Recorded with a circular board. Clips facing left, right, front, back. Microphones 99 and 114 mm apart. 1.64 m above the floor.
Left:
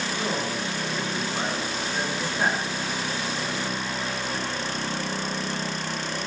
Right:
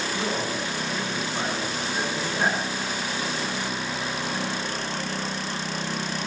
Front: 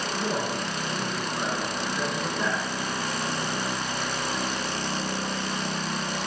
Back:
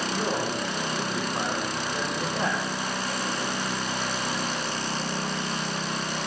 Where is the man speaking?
160° left, 3 m.